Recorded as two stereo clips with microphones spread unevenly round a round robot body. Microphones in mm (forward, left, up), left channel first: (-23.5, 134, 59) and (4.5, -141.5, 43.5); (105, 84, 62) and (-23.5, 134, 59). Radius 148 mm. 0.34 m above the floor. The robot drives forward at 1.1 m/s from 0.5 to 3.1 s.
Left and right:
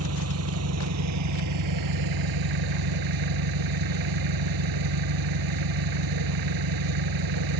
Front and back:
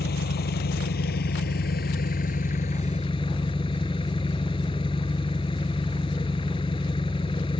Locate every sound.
0.0 s an engine running: 40° right; by 7.6 s 90° right